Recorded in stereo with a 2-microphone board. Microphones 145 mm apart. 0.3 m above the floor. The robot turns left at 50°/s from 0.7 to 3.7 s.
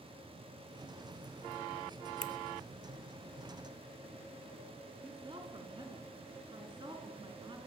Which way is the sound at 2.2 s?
35° right (ahead or behind).